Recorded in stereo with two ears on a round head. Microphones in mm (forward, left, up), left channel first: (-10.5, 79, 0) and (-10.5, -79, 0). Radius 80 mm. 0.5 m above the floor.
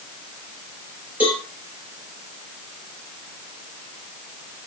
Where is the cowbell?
10° right (ahead or behind), 7 m.